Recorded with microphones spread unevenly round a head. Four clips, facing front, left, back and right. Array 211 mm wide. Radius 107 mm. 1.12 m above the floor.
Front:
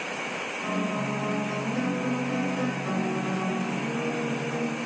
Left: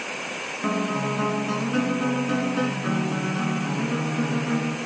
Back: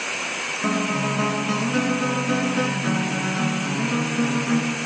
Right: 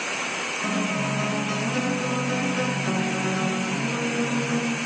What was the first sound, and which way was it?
A guitar, 150° left.